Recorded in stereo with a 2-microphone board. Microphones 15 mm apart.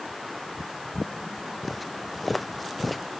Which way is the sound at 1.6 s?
5° right (ahead or behind).